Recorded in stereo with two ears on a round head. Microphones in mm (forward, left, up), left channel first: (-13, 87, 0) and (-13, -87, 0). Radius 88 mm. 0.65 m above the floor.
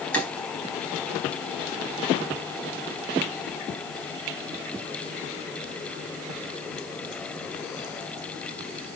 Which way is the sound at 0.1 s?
10° left (ahead or behind).